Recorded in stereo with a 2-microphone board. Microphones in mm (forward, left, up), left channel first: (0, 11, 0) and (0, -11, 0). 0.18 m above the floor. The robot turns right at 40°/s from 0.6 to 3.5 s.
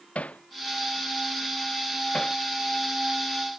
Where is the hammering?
85° left; by 2.4 s 25° left (ahead or behind).